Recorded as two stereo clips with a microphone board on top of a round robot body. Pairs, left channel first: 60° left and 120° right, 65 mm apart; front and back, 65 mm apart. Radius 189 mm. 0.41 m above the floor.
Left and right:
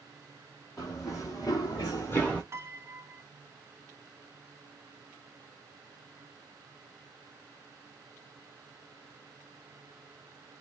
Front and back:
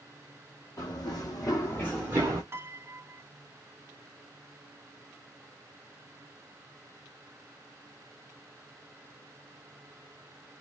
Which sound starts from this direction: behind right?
A piano, at 2.5 s.